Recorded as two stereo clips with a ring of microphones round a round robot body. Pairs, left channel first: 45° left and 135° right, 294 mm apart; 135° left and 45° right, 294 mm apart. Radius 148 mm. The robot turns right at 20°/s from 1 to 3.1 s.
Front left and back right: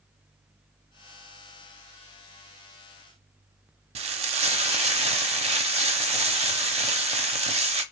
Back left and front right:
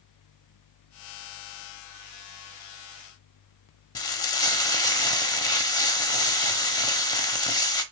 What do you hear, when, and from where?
4.0 s frying: 165° right, 0.6 m